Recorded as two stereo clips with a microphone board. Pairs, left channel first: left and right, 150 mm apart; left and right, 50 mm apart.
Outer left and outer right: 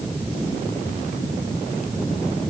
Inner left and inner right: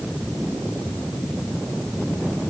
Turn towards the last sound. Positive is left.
No sound to turn to.